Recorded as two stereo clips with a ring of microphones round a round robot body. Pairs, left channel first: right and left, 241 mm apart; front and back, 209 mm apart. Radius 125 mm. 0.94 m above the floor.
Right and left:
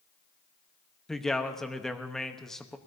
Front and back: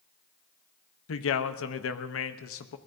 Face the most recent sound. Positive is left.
turn(degrees=0)